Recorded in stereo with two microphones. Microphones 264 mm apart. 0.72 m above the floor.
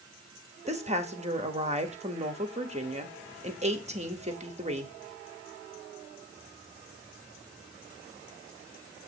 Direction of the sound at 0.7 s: 25° right (ahead or behind).